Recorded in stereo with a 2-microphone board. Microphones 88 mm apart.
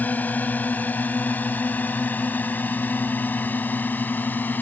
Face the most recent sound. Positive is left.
turn(degrees=20)  # may be behind; listen again after turning